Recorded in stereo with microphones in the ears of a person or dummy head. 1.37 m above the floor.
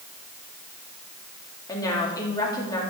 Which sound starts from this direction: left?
A woman speaking, at 1.7 s.